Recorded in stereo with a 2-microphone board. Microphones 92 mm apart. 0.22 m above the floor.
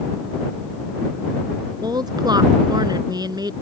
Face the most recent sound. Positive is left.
turn(degrees=-50)  # may be behind; listen again after turning